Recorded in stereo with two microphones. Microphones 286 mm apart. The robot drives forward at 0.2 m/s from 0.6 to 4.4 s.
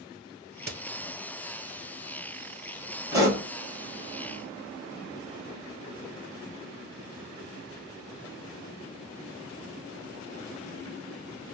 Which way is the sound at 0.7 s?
35° right (ahead or behind).